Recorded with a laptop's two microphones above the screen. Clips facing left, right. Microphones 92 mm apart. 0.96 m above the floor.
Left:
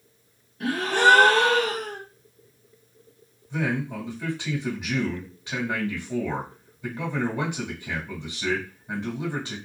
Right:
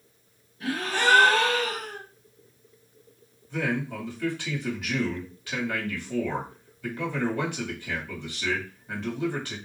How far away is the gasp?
About 0.7 m.